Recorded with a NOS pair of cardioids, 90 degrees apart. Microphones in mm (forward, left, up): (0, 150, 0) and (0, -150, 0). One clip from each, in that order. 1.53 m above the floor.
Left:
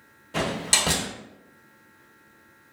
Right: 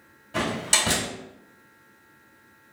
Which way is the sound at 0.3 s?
20° left.